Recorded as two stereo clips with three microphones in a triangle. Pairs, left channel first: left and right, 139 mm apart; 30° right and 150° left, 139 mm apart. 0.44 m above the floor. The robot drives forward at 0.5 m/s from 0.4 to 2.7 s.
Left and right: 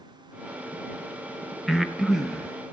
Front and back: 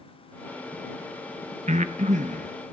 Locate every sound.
1.7 s breathing: straight behind, 0.5 m